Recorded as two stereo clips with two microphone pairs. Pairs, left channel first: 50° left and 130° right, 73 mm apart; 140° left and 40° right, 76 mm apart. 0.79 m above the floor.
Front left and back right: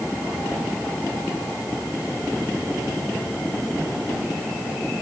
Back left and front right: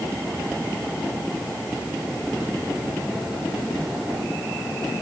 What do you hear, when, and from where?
Only background noise.